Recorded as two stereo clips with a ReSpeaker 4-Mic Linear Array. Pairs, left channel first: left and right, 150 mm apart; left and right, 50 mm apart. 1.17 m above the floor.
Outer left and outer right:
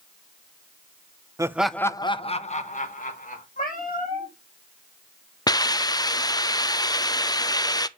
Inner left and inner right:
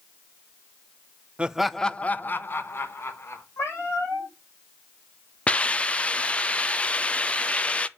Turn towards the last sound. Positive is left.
turn(degrees=25)  # may be behind; listen again after turning